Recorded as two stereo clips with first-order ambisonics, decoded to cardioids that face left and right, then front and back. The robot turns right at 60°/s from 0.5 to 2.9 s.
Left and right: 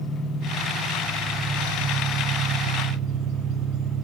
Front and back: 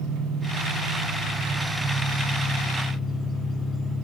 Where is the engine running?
145° left, 2.5 m; by 4.0 s 70° right, 2.5 m.